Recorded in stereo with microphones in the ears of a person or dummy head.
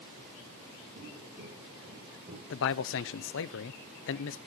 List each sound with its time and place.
0.9 s footsteps: 50° right (ahead or behind), 6 m; by 2.4 s 40° right (ahead or behind), 4.5 m
2.5 s a man speaking: 65° left (ahead or behind), 0.8 m